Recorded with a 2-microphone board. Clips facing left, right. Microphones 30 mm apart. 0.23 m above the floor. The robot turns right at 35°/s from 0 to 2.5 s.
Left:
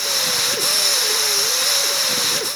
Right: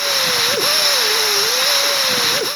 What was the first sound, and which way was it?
Only background noise.